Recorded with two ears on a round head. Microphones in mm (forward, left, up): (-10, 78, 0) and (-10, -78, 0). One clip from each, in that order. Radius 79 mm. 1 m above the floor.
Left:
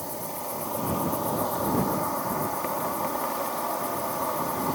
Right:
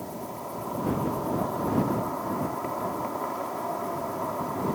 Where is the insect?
80° left.